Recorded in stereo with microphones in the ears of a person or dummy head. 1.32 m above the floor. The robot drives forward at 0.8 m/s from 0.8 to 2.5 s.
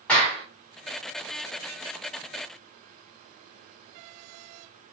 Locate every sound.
0.1 s a clap: 10° left (ahead or behind), 2.0 m